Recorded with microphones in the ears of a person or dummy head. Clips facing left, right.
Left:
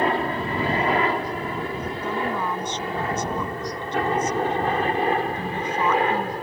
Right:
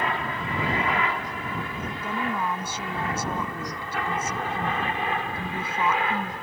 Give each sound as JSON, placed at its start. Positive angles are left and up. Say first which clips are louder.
{"t": 0.0, "sound": "a helicopter", "louder": "left 7 dB", "side_deg": 30}
{"t": 2.0, "sound": "a woman speaking", "louder": "left 2 dB", "side_deg": -5}